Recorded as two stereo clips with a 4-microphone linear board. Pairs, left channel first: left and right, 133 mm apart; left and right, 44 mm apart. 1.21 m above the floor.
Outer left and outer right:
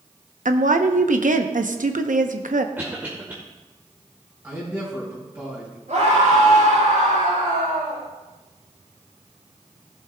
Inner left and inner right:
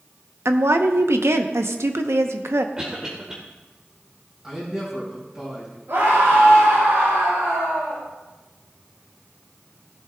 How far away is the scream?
About 5 m.